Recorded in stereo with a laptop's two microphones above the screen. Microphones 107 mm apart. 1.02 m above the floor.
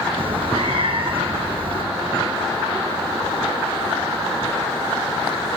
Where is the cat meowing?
55° right (ahead or behind), 4 m.